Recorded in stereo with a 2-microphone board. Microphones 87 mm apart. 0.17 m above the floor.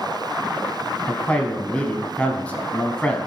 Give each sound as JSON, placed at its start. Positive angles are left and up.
{"t": 1.1, "sound": "a man speaking", "side_deg": 15, "distance_m": 1.1}